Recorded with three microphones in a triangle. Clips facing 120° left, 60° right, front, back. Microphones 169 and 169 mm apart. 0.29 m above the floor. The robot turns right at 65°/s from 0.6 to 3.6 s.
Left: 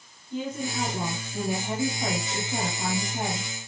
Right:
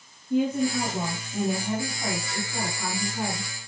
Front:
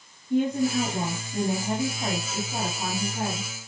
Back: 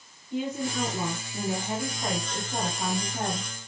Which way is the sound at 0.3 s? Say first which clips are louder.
Right 8 dB, front 7 dB; 35° right.